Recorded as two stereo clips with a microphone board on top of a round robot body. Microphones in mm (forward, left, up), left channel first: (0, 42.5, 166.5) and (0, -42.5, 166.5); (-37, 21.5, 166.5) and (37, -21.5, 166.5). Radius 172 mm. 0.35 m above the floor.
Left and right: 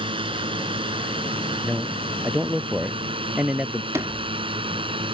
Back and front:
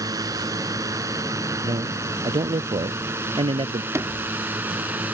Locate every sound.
0.0 s a drone: 80° right; by 5.2 s 100° right
1.6 s a man speaking: 15° right
3.9 s a sliding door: 55° right